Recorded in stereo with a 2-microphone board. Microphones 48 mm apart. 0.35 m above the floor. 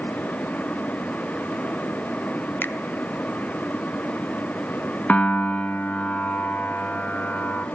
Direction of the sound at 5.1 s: 35° left (ahead or behind).